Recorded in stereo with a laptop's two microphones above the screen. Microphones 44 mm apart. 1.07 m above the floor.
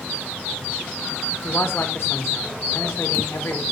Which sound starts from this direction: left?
A man speaking, at 1.4 s.